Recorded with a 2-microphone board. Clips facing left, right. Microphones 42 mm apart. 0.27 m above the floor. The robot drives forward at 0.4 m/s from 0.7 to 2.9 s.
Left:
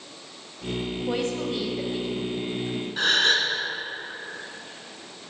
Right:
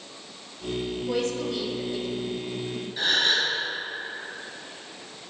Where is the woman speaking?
35° left (ahead or behind), 1.0 m; by 2.9 s 25° left (ahead or behind), 1.2 m.